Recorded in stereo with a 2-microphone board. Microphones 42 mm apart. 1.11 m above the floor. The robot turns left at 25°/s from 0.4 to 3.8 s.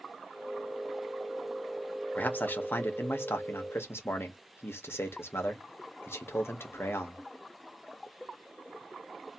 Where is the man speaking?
135° left, 1.4 m; by 7.2 s 95° left, 1.4 m.